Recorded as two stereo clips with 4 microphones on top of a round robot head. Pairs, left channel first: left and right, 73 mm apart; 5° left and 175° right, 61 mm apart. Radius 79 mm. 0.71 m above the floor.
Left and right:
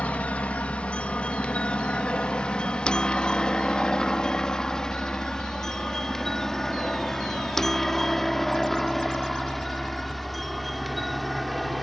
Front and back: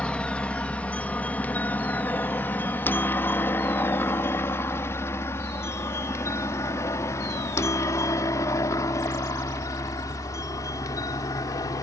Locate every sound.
0.0 s a helicopter: 45° left; by 11.8 s straight ahead